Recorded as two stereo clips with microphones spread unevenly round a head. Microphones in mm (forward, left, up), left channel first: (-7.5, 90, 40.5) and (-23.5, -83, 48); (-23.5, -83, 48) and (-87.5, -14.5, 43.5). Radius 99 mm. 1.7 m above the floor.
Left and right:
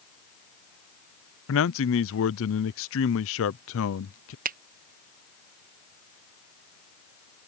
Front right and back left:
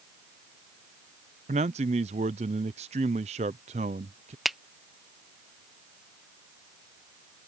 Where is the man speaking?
95° left.